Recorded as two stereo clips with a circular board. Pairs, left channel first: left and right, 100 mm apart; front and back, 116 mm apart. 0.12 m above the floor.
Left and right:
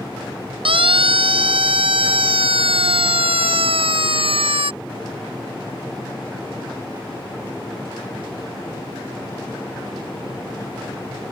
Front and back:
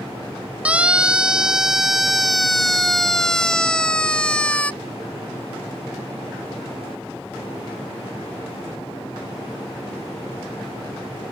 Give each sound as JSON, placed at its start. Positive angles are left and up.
{"t": 0.7, "sound": "a siren", "azimuth_deg": -100}